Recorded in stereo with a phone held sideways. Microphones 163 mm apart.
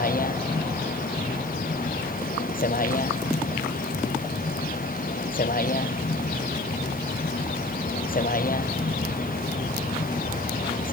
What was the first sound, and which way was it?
A vehicle, 60° left (ahead or behind).